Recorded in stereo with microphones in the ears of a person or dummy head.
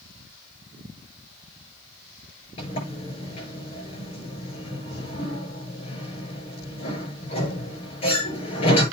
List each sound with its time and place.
2.6 s a sliding door: 40° left (ahead or behind), 6 m